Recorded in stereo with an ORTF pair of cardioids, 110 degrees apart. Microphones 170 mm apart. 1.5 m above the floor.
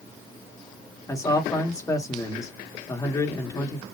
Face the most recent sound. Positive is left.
turn(degrees=20)